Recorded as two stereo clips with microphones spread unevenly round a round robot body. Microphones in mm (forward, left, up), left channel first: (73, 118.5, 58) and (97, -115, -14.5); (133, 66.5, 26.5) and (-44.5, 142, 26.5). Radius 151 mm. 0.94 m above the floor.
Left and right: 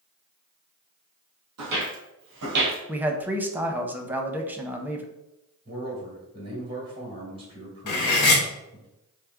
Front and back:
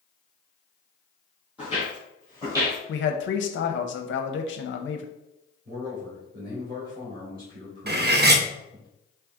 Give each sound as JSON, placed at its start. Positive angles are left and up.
{"t": 1.6, "sound": "footsteps", "azimuth_deg": -120, "distance_m": 1.4}
{"t": 2.9, "sound": "a man speaking", "azimuth_deg": -10, "distance_m": 0.6}
{"t": 5.7, "sound": "a man speaking", "azimuth_deg": -150, "distance_m": 1.7}
{"t": 7.9, "sound": "cutlery clinking", "azimuth_deg": 115, "distance_m": 0.7}